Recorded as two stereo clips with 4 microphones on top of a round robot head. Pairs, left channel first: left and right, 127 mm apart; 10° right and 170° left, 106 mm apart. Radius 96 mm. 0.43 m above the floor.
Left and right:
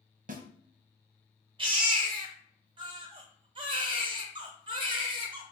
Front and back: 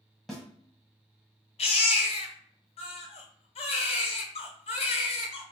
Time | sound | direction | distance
0.3 | a snare drum | 100° right | 1.0 m
1.6 | a baby crying | 40° right | 1.0 m